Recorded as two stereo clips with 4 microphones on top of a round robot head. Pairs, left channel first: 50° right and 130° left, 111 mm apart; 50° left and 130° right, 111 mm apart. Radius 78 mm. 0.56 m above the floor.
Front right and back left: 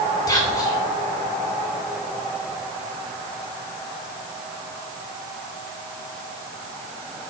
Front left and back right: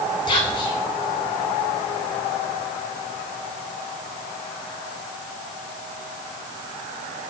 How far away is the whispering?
About 3 m.